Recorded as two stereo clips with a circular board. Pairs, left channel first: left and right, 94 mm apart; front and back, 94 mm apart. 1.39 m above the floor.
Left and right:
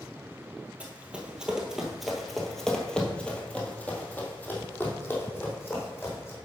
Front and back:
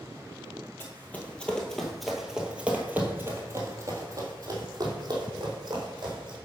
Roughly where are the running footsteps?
Ahead right.